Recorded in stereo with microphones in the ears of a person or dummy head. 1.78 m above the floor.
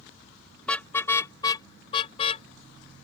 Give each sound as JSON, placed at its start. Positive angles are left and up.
{"t": 0.6, "sound": "a car horn", "side_deg": 10}